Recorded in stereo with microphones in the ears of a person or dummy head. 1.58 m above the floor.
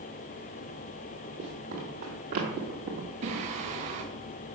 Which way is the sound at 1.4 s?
35° right (ahead or behind).